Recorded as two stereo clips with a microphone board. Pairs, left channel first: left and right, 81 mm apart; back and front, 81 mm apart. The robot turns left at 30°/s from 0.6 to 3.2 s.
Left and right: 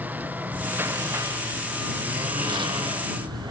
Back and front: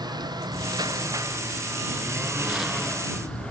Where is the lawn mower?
20° right; by 3.5 s 105° right.